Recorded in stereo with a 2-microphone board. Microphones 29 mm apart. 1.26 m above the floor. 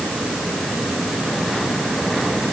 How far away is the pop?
No pop in this recording.